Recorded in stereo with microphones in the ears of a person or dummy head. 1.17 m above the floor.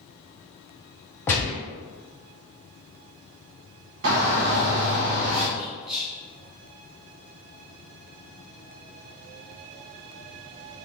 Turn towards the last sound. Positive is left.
turn(degrees=-20)  # may be behind; listen again after turning